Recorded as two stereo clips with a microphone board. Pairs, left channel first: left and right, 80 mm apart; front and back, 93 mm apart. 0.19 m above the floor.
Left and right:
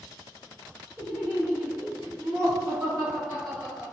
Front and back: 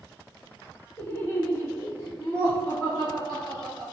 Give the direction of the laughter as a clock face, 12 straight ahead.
11 o'clock.